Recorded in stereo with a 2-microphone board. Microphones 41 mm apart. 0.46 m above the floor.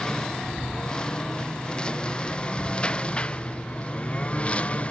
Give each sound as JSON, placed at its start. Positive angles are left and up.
{"t": 0.0, "sound": "a lawn mower", "side_deg": 15}